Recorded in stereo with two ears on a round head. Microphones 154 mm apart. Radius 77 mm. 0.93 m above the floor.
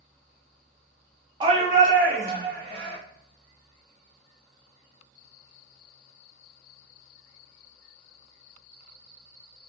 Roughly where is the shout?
Right.